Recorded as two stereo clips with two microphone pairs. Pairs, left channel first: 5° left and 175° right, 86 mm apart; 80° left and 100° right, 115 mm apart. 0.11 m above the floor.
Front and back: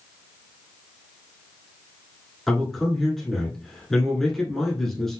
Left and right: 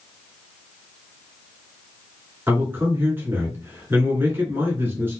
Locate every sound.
2.5 s a man speaking: 75° right, 1.5 m